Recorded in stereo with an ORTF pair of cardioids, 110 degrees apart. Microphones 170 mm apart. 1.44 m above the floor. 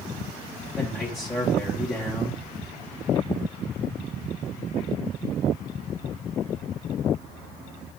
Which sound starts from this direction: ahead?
A man speaking, at 0.8 s.